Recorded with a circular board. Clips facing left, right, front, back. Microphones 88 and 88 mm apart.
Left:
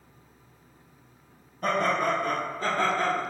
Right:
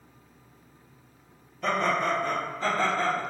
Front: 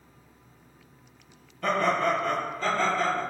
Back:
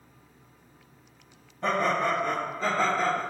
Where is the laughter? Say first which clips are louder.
Left 1 dB, front 1 dB; 135° left, 1.7 m; by 3.2 s 140° left, 1.2 m.